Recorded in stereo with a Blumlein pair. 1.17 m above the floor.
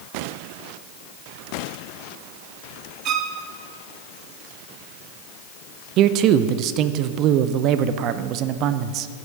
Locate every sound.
3.0 s a violin: 35° right, 1.0 m
6.0 s a man speaking: 35° right, 0.5 m